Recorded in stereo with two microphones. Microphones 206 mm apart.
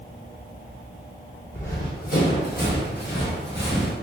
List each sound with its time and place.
1.5 s running footsteps: 40° left (ahead or behind), 1.4 m; by 3.9 s 55° left (ahead or behind), 1.5 m